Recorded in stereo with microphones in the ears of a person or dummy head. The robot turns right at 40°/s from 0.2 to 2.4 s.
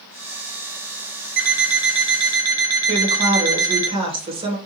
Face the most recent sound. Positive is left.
turn(degrees=-30)  # may be behind; listen again after turning